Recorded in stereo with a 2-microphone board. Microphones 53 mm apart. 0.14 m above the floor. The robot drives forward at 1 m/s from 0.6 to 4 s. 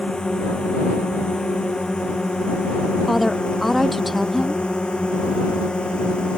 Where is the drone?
15° left (ahead or behind).